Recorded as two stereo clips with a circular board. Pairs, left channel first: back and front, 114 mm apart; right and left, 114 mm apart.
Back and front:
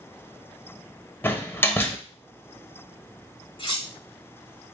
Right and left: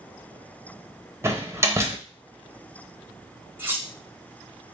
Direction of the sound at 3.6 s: 160° left.